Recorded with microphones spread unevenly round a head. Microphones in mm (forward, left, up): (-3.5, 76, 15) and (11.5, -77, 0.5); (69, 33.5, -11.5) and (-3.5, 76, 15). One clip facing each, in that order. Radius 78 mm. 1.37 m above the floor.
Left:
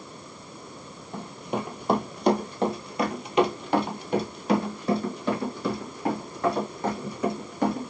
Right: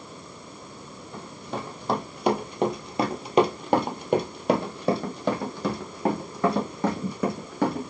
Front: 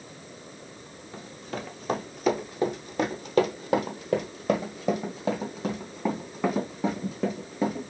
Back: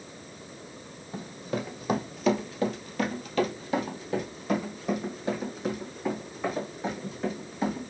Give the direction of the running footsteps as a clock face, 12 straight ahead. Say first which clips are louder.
Left 4 dB, back 4 dB; 7 o'clock.